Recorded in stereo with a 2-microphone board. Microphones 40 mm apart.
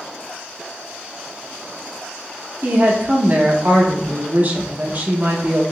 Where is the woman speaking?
45° right (ahead or behind), 0.8 m.